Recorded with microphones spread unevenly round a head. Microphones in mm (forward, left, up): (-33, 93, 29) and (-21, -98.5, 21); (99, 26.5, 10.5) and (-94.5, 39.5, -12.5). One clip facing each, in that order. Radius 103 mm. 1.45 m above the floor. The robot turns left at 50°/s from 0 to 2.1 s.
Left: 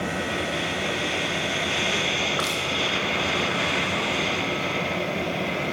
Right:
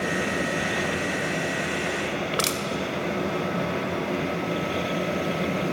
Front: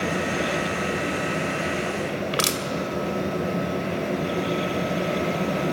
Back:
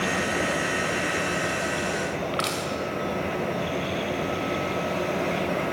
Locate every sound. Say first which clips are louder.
2.3 s crushing: right 1 dB, front 2 dB; 30° right, 2.5 m